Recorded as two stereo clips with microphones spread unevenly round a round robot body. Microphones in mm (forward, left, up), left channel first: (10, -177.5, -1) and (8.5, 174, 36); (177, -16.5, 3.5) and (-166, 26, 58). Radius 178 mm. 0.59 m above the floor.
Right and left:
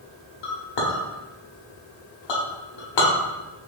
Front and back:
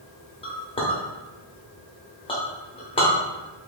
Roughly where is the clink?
Right.